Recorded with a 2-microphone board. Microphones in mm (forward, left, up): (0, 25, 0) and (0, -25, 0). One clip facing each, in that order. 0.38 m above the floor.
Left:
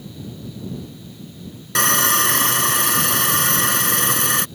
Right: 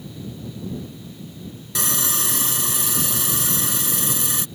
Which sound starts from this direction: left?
Sawing, at 1.8 s.